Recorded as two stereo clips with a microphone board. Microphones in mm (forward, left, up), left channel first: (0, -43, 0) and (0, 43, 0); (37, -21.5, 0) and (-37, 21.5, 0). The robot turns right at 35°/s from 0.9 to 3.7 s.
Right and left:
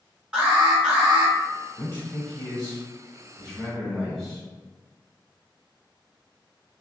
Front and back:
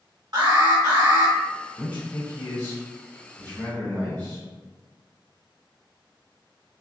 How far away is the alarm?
About 1.9 m.